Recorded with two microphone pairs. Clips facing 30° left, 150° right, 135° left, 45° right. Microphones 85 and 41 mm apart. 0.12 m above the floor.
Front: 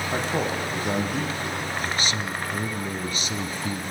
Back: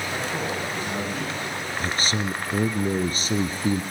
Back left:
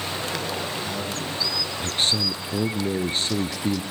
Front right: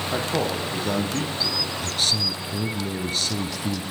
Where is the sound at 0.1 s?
20° right, 6 m.